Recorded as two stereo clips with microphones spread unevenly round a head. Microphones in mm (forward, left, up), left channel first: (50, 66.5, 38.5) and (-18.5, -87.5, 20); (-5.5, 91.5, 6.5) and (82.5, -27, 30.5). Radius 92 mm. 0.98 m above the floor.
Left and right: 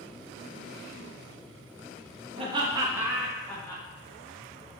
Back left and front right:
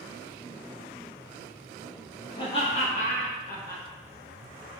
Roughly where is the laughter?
Behind.